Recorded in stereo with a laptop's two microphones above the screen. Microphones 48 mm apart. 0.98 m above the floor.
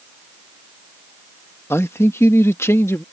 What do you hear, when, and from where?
1.7 s a man speaking: 65° left (ahead or behind); by 3.0 s 70° left (ahead or behind)